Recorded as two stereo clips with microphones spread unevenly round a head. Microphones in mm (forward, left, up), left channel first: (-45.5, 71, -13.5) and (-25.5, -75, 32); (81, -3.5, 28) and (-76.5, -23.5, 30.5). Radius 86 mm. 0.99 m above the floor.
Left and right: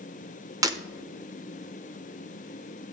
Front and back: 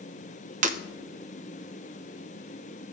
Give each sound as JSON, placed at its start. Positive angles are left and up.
{"t": 0.6, "sound": "breaking glass", "azimuth_deg": -135, "distance_m": 1.0}